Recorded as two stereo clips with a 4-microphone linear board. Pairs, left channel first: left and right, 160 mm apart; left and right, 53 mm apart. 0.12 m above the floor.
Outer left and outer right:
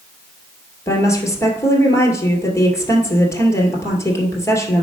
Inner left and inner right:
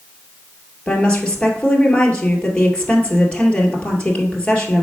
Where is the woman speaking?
20° left (ahead or behind), 2.0 m.